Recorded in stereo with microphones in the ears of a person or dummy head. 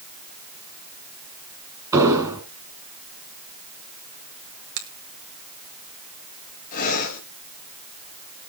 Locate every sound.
1.9 s an explosion: 15° right (ahead or behind), 2.0 m
4.8 s a finger snap: 80° right, 2 m
6.7 s breathing: 45° left (ahead or behind), 3 m